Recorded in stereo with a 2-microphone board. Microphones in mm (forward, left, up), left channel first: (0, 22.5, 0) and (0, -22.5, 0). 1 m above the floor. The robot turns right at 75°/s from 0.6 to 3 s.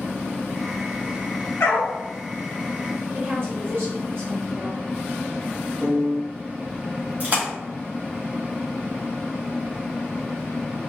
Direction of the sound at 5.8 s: 40° right (ahead or behind).